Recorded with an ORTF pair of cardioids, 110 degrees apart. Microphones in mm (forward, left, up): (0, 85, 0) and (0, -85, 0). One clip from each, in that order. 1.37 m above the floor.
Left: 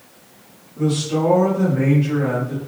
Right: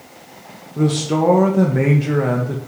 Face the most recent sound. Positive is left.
turn(degrees=-60)